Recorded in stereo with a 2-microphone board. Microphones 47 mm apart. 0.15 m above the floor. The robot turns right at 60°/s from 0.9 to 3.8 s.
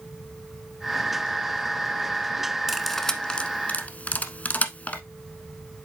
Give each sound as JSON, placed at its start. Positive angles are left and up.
{"t": 2.7, "sound": "cutlery clinking", "side_deg": -5, "distance_m": 0.8}